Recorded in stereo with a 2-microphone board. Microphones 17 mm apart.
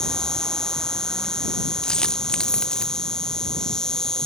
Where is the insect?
50° left (ahead or behind).